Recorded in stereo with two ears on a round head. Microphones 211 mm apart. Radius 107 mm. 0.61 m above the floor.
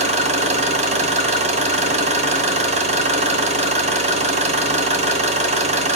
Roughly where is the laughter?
No laughter in this recording.